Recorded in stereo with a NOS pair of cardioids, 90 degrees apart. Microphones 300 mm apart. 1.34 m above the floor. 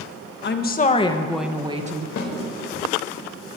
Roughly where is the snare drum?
Ahead left.